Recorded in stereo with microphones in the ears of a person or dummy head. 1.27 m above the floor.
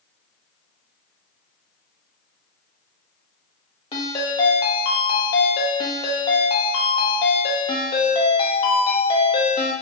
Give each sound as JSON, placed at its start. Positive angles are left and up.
{"t": 3.9, "sound": "a ringtone", "side_deg": 25, "distance_m": 0.9}